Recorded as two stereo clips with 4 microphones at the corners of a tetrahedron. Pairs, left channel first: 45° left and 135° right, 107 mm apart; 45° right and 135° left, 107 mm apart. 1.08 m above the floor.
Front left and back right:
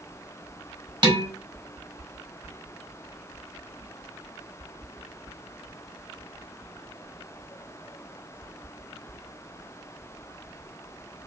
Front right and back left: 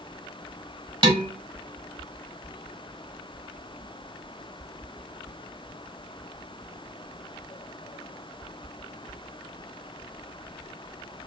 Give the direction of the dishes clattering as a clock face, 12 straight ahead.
6 o'clock.